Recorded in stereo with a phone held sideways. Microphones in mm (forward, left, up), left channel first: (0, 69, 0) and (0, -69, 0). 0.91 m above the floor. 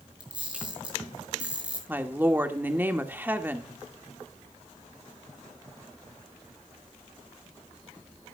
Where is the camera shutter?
10° right (ahead or behind), 6 m.